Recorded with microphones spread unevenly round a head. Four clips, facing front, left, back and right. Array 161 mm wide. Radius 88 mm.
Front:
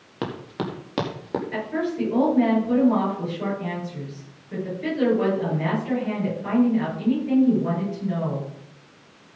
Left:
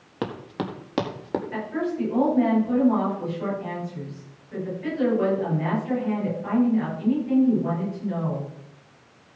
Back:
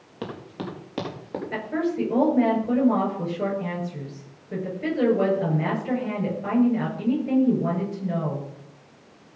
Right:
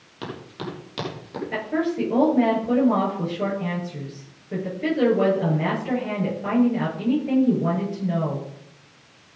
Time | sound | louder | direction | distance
0.2 | running footsteps | left 3 dB, front 4 dB | 15° left | 3.5 m
1.5 | a woman speaking | right 8 dB, back 3 dB | 125° right | 8.5 m